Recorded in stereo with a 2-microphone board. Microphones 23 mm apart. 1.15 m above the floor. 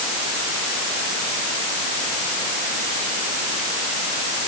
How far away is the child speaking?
No child speaking in this recording.